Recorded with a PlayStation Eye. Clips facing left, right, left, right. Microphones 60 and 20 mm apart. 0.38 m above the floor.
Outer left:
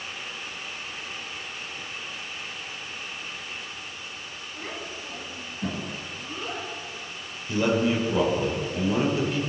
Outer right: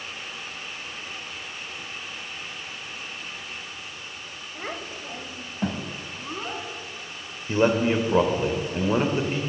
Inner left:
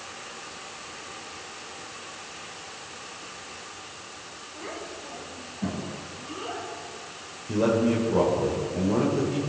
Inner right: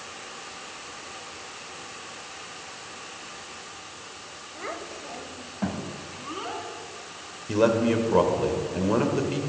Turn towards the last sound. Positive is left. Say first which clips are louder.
# outer right 2 dB, inner right 1 dB
turn(degrees=-35)  # may be behind; listen again after turning